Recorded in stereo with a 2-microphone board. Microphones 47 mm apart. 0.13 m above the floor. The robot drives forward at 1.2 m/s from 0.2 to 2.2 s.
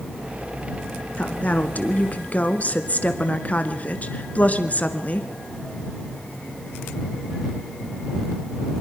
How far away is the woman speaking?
About 1.6 m.